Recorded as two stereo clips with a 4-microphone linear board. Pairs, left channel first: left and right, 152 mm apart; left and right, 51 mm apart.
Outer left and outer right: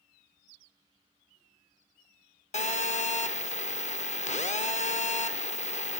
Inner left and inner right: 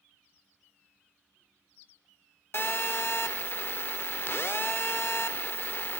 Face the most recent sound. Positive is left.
turn(degrees=50)  # may be behind; listen again after turning